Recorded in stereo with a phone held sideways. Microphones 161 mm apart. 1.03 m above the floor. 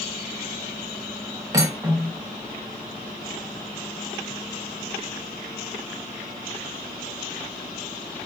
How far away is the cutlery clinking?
About 0.6 m.